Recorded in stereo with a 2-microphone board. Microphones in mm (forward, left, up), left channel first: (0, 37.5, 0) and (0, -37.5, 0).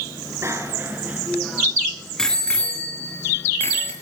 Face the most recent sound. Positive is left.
turn(degrees=35)  # may be behind; listen again after turning